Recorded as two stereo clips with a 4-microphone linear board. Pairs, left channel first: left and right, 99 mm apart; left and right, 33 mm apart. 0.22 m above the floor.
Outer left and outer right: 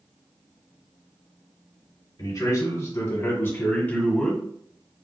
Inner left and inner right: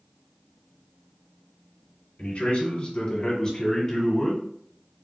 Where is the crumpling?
No crumpling in this recording.